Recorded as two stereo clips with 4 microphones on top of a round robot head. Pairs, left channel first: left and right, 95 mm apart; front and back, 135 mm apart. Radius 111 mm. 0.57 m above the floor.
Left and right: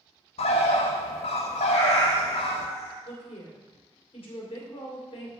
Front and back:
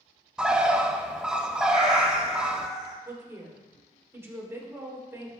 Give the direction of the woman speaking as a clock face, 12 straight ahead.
8 o'clock.